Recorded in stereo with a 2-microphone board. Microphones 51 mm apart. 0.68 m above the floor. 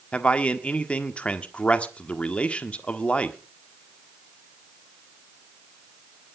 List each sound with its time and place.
0.1 s a man speaking: 25° left (ahead or behind), 1.5 m